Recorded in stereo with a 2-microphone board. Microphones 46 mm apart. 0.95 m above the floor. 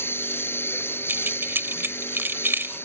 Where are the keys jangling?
55° right (ahead or behind).